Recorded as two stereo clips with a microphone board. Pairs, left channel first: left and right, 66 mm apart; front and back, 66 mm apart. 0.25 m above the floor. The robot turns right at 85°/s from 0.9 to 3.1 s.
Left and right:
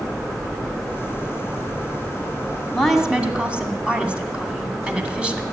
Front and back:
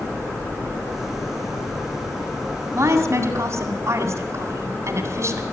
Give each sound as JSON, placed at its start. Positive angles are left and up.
{"t": 2.7, "sound": "a woman speaking", "azimuth_deg": 165, "distance_m": 2.0}